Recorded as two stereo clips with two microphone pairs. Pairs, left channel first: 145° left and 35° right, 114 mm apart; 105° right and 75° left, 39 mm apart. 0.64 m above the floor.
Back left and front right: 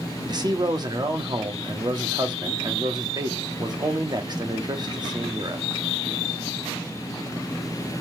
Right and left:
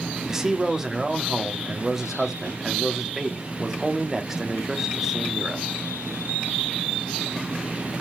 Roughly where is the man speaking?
Ahead.